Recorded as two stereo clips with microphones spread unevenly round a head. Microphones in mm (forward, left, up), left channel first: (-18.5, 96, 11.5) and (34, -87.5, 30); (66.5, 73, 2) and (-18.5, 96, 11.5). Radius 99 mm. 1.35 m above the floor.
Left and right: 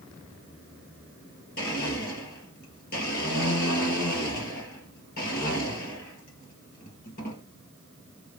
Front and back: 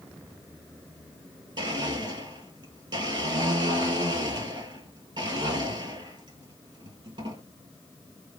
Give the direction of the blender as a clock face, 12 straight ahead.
7 o'clock.